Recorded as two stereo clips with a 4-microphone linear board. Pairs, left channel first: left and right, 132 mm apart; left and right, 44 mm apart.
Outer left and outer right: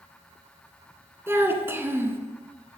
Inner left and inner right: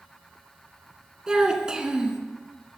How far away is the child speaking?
About 0.9 m.